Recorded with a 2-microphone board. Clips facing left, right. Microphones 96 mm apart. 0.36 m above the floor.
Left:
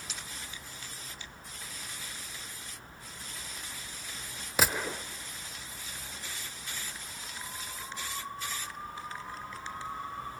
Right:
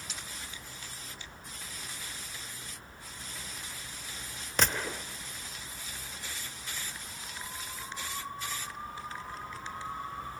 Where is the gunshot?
5° left (ahead or behind), 0.7 m.